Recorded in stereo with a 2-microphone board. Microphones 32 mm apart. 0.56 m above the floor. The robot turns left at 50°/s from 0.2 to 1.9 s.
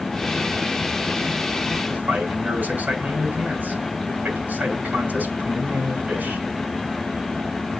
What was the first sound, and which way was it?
A man speaking, 60° right (ahead or behind).